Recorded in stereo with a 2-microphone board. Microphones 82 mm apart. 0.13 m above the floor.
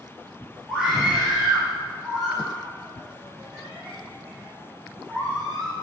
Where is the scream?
10° right (ahead or behind), 2 m; by 5.7 s 5° right (ahead or behind), 7 m.